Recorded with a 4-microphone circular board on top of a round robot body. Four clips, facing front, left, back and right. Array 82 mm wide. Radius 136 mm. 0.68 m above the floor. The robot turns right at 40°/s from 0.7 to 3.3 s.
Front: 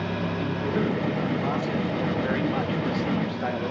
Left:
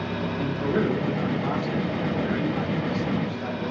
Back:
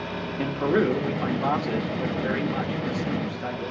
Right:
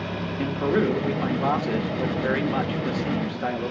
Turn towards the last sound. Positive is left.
turn(degrees=-50)